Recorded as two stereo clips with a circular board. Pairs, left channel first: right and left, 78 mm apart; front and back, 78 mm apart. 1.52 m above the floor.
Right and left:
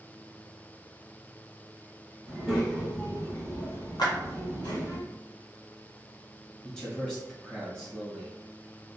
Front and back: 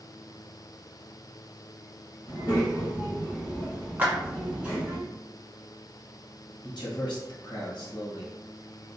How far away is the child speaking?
About 1.0 m.